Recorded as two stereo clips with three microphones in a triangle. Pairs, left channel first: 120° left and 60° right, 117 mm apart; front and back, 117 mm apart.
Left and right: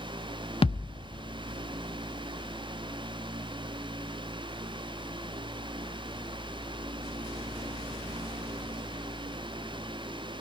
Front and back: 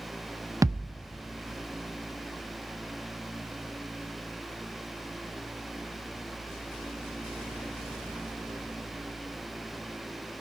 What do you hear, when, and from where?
0.6 s a thud: 125° left, 0.6 m